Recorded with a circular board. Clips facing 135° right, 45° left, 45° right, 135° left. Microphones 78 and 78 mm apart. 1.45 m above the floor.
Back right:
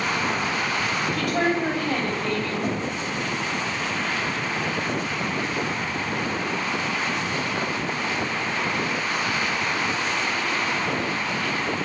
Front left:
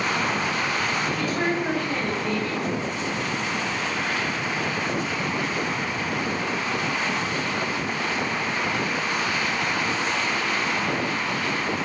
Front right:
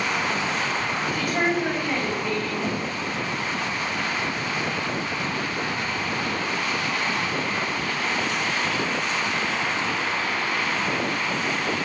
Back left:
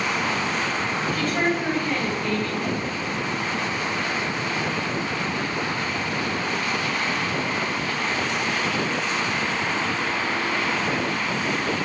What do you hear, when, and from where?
1.1 s a woman speaking: 120° right, 3 m
2.6 s knocking: 105° right, 1.8 m